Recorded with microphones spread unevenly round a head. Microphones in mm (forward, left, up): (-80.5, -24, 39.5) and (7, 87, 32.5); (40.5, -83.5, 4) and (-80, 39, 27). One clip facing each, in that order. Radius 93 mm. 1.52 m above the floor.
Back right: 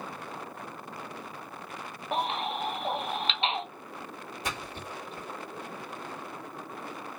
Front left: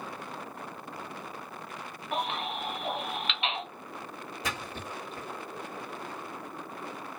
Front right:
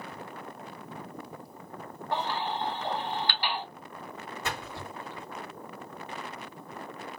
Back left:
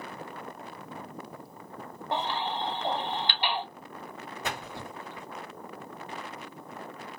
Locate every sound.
2.1 s a baby crying: 175° right, 1.3 m
4.4 s a splash: 60° left, 2 m